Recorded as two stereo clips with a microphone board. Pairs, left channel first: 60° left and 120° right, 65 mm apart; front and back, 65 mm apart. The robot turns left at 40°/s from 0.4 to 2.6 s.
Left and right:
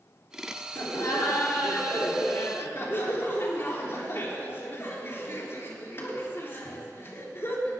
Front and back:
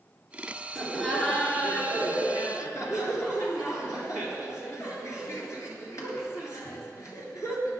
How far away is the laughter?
About 3 m.